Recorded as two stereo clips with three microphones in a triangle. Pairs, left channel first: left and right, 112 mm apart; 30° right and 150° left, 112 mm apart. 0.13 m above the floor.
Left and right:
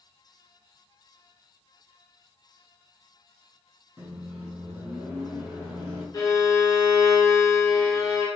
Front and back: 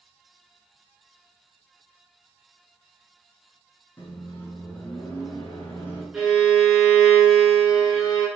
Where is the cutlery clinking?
No cutlery clinking in this recording.